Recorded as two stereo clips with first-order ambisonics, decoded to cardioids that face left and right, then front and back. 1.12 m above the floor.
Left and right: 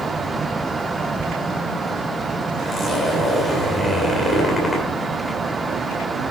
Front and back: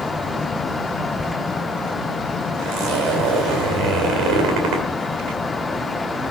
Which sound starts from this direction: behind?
A zipper, at 2.6 s.